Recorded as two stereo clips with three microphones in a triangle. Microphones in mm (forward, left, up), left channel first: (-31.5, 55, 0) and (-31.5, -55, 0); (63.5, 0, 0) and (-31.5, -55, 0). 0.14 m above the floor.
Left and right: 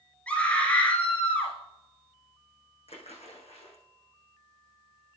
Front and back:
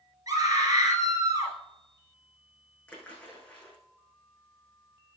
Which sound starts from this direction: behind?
A scream, at 0.3 s.